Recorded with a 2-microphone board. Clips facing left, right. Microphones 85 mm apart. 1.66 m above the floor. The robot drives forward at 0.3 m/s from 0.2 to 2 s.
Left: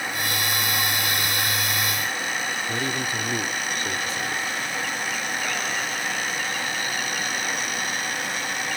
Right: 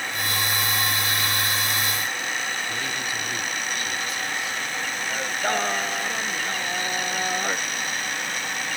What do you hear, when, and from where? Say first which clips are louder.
2.7 s a man speaking: left 3 dB; 35° left (ahead or behind)
5.1 s singing: right 3 dB; 45° right (ahead or behind)